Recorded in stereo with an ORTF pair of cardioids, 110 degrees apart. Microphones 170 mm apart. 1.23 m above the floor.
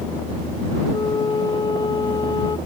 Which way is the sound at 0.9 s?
25° left.